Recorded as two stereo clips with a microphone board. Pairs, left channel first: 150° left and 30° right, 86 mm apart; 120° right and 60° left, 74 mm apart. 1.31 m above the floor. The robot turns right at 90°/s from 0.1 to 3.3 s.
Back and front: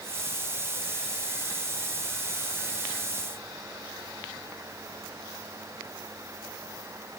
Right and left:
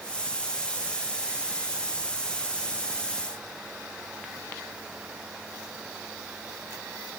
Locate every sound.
Only background noise.